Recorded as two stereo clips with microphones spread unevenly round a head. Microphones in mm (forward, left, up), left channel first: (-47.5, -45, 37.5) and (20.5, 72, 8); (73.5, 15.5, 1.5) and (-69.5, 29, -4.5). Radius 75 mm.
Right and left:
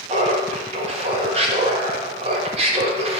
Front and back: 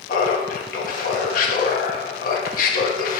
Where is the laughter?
15° left, 1.6 m.